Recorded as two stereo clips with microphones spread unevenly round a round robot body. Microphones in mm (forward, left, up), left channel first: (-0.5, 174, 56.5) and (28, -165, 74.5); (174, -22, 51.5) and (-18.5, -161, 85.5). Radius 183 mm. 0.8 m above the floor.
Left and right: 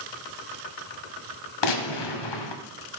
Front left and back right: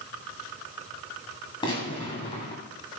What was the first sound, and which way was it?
A gunshot, 115° left.